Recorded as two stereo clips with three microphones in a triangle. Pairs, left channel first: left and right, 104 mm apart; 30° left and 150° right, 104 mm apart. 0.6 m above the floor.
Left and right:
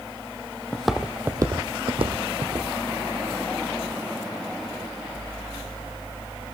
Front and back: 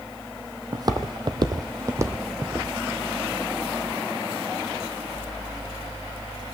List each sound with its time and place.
0.7 s footsteps: 170° left, 0.9 m; by 2.7 s 80° right, 1.6 m